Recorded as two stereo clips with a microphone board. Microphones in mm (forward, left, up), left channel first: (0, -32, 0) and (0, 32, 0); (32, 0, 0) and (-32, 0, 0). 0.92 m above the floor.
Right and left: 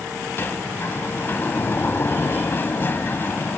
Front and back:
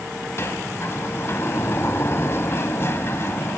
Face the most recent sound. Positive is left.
turn(degrees=-40)